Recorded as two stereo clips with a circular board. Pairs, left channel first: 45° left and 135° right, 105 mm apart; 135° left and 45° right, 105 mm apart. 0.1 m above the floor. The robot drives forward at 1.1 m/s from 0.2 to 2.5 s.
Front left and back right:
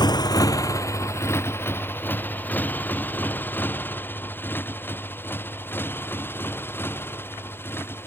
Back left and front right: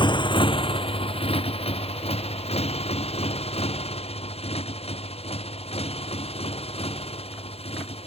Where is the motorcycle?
95° left; by 8.1 s 115° left.